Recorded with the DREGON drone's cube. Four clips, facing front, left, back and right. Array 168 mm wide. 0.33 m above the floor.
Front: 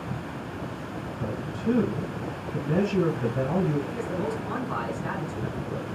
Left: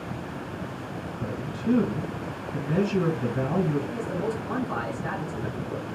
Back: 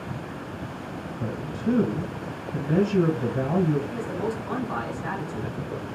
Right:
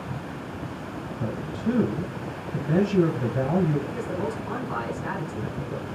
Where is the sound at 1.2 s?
110° right, 1.6 m.